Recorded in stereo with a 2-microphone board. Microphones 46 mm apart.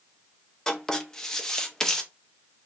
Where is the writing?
10° left (ahead or behind), 0.5 m.